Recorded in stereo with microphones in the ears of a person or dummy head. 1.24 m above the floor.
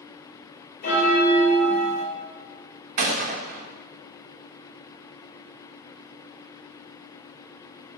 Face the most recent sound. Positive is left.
turn(degrees=-50)  # may be behind; listen again after turning